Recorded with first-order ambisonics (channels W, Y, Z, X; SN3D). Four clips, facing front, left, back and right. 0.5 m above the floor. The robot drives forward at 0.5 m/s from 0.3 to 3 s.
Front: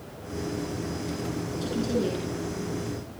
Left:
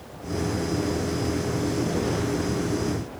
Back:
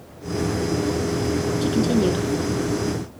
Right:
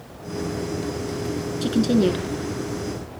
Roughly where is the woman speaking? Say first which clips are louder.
Right 11 dB, back 6 dB; behind right.